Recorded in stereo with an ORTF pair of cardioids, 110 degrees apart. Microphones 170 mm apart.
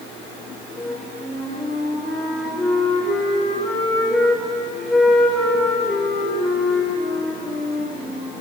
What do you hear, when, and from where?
0.8 s a flute: straight ahead, 4 m